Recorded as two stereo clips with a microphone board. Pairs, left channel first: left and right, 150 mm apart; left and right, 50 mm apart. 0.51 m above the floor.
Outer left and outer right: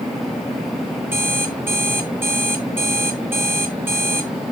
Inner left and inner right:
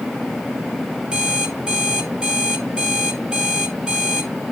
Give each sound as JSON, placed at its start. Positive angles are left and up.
{"t": 1.1, "sound": "an alarm clock", "side_deg": -15, "distance_m": 1.3}